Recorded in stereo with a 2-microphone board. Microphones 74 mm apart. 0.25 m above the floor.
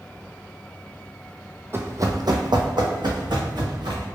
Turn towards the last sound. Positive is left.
turn(degrees=-75)  # may be behind; listen again after turning